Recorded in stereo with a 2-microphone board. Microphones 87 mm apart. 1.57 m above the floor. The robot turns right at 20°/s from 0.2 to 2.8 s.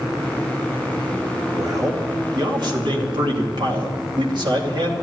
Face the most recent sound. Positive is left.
turn(degrees=-65)  # may be behind; listen again after turning